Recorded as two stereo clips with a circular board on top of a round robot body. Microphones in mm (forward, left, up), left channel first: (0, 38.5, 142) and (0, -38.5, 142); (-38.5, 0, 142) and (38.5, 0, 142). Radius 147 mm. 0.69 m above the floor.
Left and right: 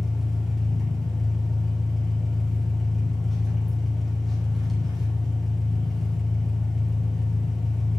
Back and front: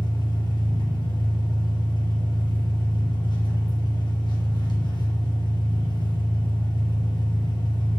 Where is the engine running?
Straight behind, 2 m.